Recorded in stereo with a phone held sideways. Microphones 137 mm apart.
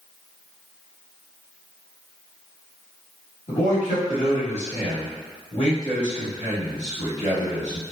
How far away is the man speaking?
About 1.5 m.